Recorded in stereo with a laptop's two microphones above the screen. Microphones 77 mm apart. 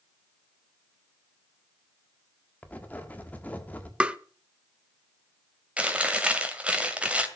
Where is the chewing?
15° right (ahead or behind), 2.5 m.